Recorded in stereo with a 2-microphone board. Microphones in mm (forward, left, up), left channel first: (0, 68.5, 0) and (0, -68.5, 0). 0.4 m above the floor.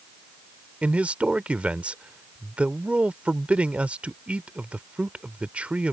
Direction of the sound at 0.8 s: 10° right (ahead or behind).